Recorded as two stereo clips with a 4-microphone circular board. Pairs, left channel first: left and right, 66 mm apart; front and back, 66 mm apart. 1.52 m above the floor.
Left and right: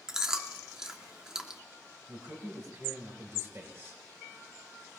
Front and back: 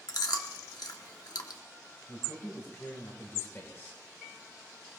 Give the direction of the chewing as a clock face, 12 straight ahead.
12 o'clock.